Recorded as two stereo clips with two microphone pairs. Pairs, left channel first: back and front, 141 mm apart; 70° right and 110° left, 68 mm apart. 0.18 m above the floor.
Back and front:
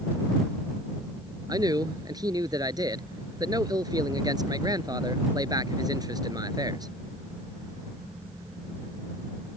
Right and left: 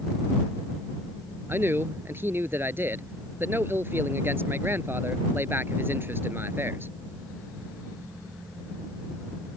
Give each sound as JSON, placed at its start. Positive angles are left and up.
{"t": 1.5, "sound": "a man speaking", "azimuth_deg": 60}